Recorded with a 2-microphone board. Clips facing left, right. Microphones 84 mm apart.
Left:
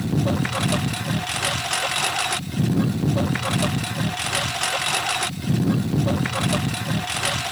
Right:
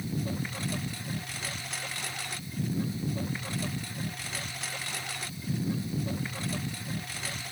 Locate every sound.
0.0 s a lawn mower: 70° left (ahead or behind)